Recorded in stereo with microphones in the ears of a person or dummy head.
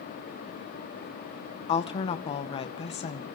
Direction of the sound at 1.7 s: 35° left (ahead or behind).